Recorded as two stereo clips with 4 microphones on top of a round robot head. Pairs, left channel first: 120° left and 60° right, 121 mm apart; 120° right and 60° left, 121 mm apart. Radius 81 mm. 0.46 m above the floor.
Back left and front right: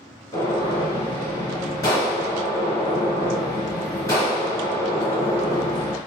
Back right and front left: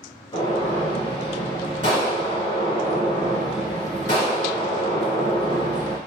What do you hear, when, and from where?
0.3 s a gunshot: 175° right, 2.5 m